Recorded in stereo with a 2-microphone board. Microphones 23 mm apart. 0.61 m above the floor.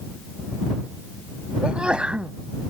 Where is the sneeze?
50° right (ahead or behind).